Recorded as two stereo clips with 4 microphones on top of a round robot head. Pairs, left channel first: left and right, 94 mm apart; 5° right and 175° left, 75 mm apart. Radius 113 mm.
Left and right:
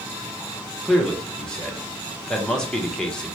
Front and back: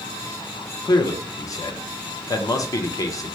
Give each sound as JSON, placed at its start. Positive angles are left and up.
{"t": 0.8, "sound": "a man speaking", "azimuth_deg": 10, "distance_m": 0.8}